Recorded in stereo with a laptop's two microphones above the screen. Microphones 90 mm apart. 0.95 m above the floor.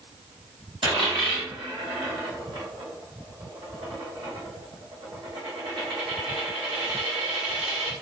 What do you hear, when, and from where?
0.8 s a dropped coin: 65° right (ahead or behind), 1.2 m